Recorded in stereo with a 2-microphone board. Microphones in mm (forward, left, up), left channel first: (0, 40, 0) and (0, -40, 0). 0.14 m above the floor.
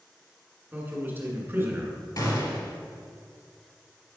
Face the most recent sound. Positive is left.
turn(degrees=55)  # may be behind; listen again after turning